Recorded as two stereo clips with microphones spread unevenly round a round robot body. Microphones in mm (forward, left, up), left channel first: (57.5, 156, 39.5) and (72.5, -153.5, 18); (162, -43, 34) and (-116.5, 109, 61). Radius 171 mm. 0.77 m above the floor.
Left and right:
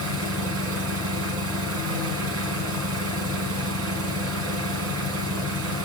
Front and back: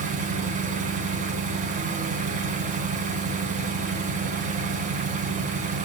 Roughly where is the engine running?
Behind right.